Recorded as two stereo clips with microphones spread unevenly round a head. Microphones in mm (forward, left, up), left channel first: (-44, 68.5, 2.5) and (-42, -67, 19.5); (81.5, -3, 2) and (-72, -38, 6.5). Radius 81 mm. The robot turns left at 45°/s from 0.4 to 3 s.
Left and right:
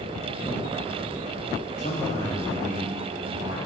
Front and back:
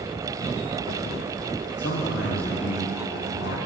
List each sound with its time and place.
1.8 s a man speaking: 45° left, 1.0 m; by 3.6 s 10° right, 1.0 m